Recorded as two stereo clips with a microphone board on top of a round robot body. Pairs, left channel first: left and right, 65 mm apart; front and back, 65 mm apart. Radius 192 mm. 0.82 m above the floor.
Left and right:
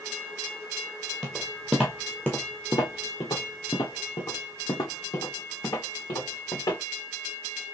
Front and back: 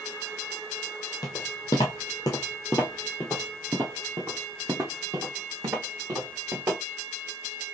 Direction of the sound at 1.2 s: 25° right.